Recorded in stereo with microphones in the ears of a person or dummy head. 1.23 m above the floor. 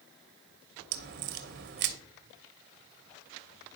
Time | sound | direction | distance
0.9 | a crack | 45° right (ahead or behind) | 0.9 m